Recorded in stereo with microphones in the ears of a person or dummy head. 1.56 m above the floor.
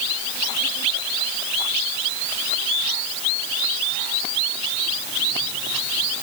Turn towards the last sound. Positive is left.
No sound to turn to.